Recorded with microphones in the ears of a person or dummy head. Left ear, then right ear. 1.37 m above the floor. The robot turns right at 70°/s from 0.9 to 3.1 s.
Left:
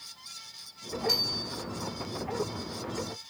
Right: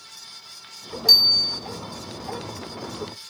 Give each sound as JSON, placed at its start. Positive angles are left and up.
{"t": 1.1, "sound": "a bicycle bell", "azimuth_deg": -75, "distance_m": 8.0}